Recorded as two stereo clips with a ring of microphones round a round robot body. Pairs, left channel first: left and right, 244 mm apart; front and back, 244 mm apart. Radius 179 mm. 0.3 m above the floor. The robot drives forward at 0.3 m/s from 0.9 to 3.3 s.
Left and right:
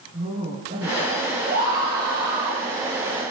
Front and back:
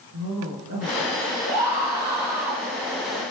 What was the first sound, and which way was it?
A woman speaking, 160° right.